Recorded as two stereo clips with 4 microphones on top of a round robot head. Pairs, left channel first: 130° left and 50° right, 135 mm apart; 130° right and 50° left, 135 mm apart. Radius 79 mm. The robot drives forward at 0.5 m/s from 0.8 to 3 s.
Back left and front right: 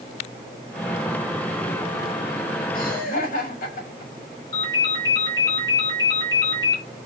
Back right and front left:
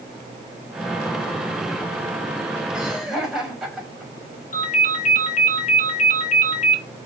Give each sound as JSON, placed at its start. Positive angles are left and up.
{"t": 2.7, "sound": "laughter", "azimuth_deg": 140, "distance_m": 3.0}
{"t": 4.5, "sound": "a ringtone", "azimuth_deg": -165, "distance_m": 2.5}